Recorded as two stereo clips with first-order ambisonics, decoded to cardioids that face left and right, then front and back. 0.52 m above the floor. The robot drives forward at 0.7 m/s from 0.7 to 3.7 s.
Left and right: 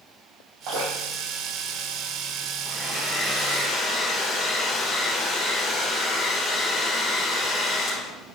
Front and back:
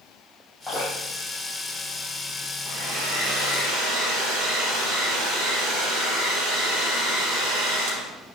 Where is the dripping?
75° right, 3.5 m; by 1.2 s 80° right, 3.5 m.